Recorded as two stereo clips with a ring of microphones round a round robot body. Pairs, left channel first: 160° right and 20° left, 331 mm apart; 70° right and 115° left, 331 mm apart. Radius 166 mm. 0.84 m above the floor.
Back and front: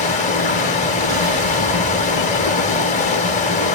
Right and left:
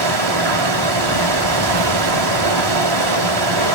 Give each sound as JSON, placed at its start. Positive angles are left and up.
{"t": 0.0, "sound": "running water", "azimuth_deg": 135, "distance_m": 3.0}